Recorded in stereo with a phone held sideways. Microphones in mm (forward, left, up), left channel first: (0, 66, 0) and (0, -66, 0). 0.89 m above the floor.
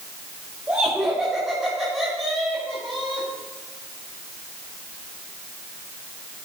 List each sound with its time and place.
0.7 s laughter: 10° right (ahead or behind), 3.5 m; by 3.3 s 10° left (ahead or behind), 5.5 m